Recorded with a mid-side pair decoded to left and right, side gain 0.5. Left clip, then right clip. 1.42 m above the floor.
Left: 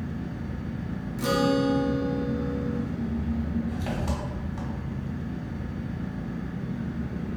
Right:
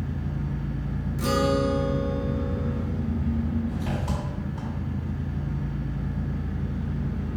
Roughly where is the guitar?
Ahead.